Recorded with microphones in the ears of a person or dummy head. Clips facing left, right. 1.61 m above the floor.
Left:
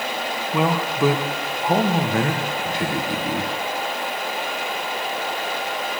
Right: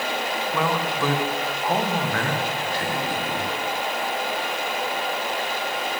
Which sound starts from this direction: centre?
A man speaking, at 0.5 s.